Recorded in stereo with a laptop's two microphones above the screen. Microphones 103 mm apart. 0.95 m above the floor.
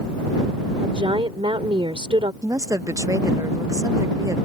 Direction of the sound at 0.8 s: 65° right (ahead or behind).